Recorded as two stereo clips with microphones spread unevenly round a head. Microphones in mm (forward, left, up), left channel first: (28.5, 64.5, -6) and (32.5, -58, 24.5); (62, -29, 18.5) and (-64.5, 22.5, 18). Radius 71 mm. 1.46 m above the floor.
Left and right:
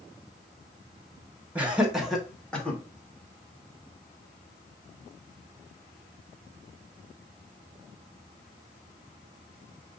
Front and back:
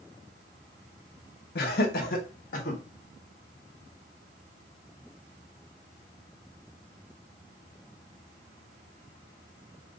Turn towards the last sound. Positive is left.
turn(degrees=15)